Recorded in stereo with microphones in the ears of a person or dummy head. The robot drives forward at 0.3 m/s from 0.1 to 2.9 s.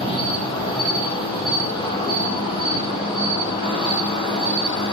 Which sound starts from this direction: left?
An insect, at 0.0 s.